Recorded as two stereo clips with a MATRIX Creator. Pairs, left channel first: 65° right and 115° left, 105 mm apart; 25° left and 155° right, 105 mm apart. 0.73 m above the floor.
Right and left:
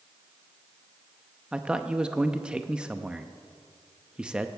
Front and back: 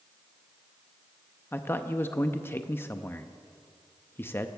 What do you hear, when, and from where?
1.5 s a man speaking: 45° left, 0.5 m